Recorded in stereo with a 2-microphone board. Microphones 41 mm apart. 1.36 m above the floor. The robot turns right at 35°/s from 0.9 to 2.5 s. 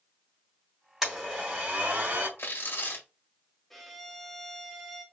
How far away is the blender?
About 2.5 m.